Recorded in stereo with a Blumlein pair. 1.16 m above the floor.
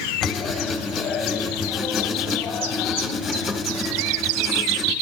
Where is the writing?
15° left, 2.5 m.